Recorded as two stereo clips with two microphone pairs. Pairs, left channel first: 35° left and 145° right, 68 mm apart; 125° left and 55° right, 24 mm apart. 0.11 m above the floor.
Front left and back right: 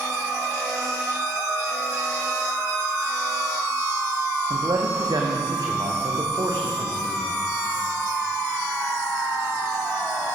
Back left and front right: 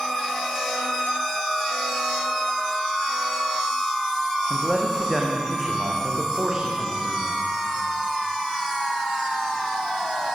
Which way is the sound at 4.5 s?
145° right.